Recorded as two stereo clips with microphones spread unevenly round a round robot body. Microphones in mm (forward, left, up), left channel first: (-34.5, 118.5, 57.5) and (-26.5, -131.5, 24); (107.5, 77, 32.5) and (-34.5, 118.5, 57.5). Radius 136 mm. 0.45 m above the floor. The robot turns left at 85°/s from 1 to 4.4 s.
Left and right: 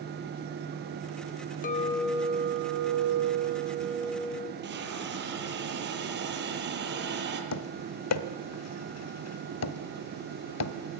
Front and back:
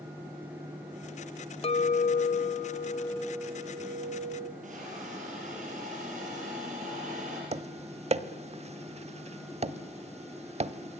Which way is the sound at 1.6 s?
30° left.